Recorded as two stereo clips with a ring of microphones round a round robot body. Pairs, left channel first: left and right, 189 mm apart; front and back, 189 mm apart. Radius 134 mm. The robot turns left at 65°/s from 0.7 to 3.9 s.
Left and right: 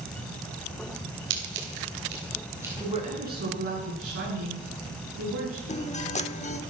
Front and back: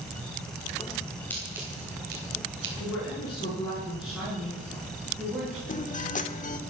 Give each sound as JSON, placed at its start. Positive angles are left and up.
{"t": 1.3, "sound": "scissors", "azimuth_deg": -80, "distance_m": 3.0}
{"t": 2.8, "sound": "a woman speaking", "azimuth_deg": -20, "distance_m": 8.5}
{"t": 5.7, "sound": "a guitar", "azimuth_deg": 40, "distance_m": 1.3}